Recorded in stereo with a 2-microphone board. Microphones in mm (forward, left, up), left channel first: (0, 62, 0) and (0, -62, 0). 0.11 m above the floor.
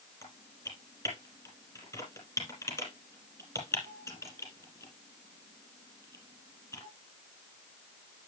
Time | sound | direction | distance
0.2 | typing on a keyboard | 25° left (ahead or behind) | 3 m